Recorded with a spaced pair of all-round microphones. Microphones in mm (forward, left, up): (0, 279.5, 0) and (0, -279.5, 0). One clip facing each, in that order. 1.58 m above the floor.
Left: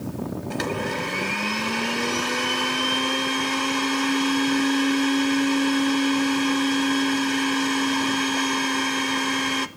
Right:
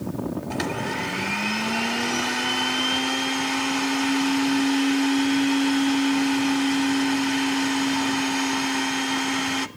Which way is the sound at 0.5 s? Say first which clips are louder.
Left 1 dB; 5° right (ahead or behind).